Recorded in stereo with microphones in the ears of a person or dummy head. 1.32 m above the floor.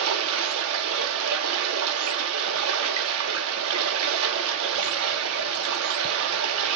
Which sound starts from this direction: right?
Running water, at 0.0 s.